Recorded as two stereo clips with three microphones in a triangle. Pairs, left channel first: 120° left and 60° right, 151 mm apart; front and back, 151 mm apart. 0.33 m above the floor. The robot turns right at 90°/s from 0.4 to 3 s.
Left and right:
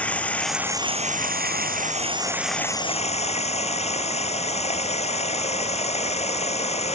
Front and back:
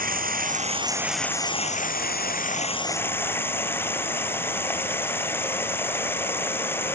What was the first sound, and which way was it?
Running water, 160° right.